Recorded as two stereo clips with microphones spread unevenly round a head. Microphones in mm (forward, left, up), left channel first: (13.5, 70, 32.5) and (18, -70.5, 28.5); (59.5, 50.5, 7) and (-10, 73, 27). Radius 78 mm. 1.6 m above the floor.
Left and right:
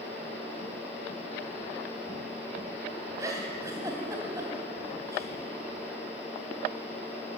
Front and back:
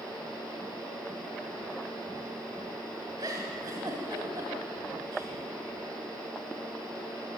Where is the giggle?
155° right, 2.5 m.